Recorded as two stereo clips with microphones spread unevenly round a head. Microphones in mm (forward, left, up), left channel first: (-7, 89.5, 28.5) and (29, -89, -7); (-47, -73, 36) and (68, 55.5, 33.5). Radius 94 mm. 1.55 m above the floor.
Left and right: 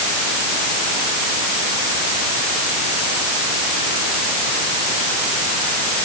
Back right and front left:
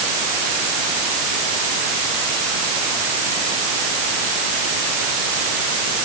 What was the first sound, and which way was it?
Only background noise.